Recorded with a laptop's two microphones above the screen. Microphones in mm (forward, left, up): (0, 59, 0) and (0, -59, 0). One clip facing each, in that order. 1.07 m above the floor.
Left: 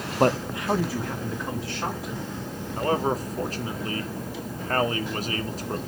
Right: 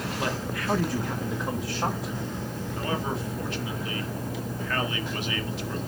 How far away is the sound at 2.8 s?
About 1.7 m.